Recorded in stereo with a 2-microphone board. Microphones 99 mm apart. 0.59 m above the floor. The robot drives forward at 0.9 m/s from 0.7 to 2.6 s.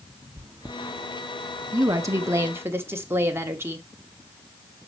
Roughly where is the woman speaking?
Right.